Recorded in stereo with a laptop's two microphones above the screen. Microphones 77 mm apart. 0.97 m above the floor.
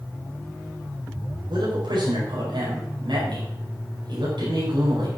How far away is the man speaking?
About 5 m.